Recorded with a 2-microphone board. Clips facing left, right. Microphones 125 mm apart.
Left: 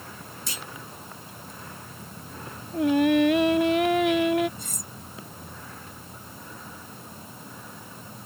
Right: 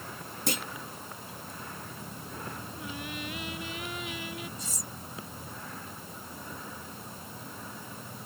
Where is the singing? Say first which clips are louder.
Left 25 dB; 75° left (ahead or behind).